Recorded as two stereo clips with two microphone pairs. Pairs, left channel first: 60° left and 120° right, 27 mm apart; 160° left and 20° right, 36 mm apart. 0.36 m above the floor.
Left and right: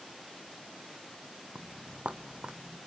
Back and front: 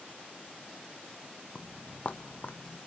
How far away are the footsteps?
About 0.9 m.